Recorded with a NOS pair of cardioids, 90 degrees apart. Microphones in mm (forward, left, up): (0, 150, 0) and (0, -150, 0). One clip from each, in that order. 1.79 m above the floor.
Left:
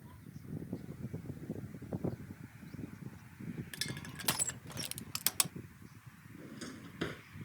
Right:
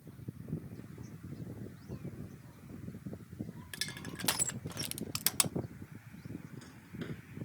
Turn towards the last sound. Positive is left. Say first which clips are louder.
# left 5 dB
turn(degrees=60)